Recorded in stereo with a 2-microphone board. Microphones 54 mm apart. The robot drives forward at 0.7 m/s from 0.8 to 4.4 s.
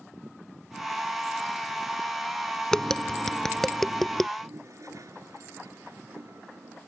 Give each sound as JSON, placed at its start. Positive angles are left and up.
{"t": 2.7, "sound": "tapping", "side_deg": 10}
{"t": 4.4, "sound": "a toilet flushing", "side_deg": -75}